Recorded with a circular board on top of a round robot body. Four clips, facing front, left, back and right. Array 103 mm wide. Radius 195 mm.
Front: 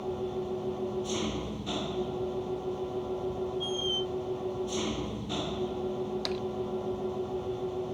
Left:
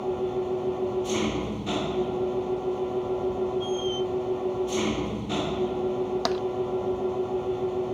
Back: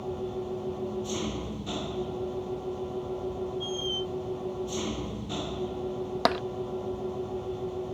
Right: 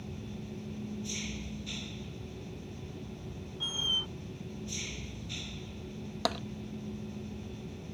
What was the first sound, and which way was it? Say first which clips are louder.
An engine running: left 17 dB, even; 90° left.